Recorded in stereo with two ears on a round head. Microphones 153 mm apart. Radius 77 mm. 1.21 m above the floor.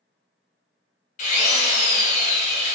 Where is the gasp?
I don't hear a gasp.